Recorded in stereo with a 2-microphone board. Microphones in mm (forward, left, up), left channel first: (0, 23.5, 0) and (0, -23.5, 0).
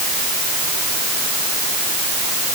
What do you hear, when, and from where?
Only background noise.